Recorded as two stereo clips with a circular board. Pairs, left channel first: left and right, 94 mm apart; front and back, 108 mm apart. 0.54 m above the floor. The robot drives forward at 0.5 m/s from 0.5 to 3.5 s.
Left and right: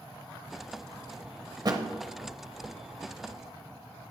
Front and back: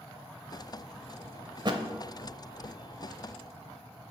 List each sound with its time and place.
1.6 s a thud: 130° right, 0.8 m; by 1.8 s 135° right, 0.9 m